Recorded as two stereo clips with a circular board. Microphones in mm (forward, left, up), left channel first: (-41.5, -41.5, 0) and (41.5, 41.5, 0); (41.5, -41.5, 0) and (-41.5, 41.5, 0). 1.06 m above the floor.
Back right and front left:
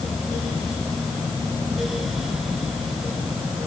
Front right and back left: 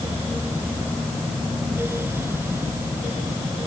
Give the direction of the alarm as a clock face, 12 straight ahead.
I don't hear an alarm.